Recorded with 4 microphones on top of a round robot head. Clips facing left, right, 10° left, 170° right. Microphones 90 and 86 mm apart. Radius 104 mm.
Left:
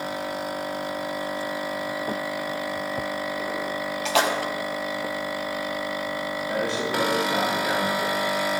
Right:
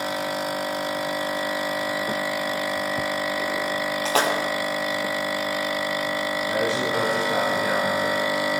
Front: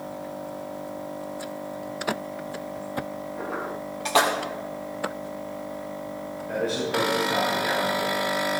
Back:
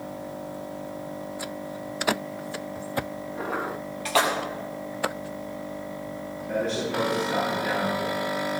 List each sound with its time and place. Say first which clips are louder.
4.0 s a splash: even, front 2 dB; 55° right, 2.5 m
6.5 s a man speaking: right 2 dB, front 1 dB; 80° right, 6.5 m